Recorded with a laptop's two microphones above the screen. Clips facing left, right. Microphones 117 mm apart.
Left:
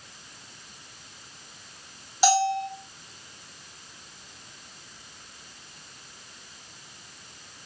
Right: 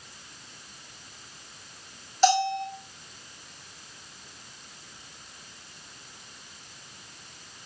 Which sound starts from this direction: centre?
A bell, at 2.2 s.